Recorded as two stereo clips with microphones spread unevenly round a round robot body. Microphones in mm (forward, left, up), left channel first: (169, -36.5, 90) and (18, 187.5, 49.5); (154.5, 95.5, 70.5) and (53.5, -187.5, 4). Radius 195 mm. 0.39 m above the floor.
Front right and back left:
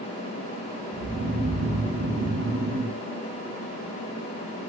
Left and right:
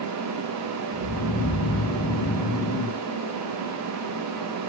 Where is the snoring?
90° left, 2.5 m.